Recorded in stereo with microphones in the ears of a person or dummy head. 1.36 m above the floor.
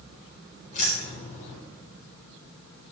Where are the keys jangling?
45° left (ahead or behind), 4.5 m.